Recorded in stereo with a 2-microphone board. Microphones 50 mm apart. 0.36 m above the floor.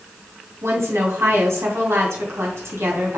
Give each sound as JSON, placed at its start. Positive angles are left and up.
{"t": 0.6, "sound": "a woman speaking", "side_deg": -65, "distance_m": 3.5}